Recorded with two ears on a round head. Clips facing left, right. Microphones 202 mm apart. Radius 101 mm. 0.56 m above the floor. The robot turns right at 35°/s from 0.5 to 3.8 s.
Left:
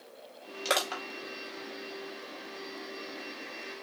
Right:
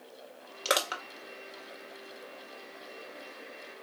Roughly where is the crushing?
Centre.